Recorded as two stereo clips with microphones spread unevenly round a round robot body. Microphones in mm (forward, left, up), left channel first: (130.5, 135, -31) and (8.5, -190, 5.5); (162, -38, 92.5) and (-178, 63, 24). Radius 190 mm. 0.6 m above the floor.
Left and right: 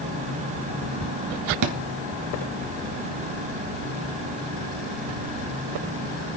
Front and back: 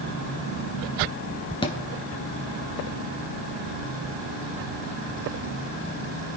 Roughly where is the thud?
Right.